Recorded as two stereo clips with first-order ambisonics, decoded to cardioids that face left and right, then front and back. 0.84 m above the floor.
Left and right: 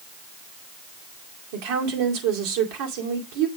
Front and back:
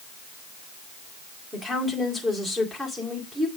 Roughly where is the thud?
I don't hear a thud.